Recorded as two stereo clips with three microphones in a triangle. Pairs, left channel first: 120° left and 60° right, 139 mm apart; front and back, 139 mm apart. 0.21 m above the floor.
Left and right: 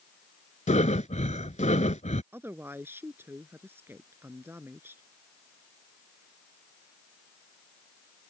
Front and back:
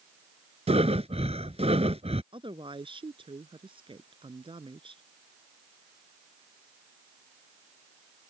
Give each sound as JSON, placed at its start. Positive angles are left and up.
{"t": 0.7, "sound": "breathing", "azimuth_deg": 145}
{"t": 2.3, "sound": "a woman speaking", "azimuth_deg": -135}